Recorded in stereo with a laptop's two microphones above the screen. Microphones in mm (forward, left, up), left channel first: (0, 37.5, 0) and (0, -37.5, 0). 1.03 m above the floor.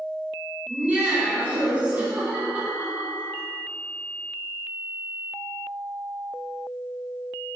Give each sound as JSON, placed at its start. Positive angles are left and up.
{"t": 0.7, "sound": "laughter", "side_deg": -20, "distance_m": 2.5}